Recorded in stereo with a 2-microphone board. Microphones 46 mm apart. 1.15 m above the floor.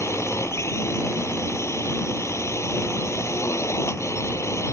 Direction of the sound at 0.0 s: 75° left (ahead or behind).